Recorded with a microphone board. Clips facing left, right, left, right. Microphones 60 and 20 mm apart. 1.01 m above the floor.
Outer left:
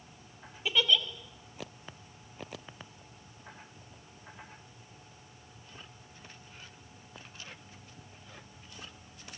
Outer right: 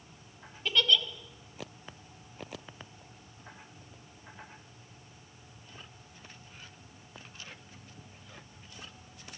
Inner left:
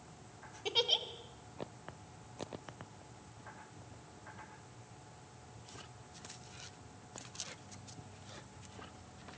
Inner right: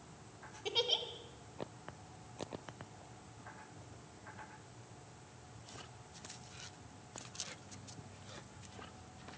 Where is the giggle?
10° left (ahead or behind), 2.0 m.